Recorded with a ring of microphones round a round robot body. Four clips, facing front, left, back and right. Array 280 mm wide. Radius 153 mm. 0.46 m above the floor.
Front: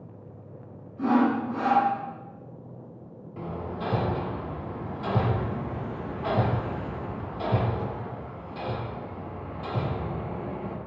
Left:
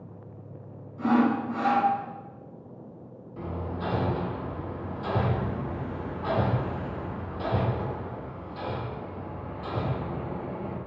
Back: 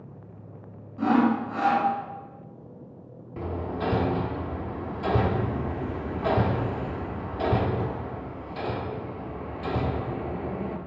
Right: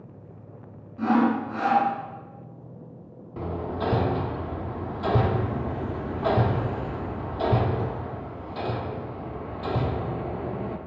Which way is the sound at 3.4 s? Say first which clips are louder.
Right 4 dB, back 3 dB; 120° right.